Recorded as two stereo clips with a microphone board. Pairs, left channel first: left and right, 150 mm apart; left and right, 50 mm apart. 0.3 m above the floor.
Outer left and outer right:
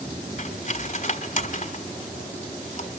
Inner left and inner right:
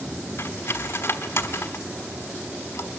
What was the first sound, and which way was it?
Cutlery clinking, 55° left (ahead or behind).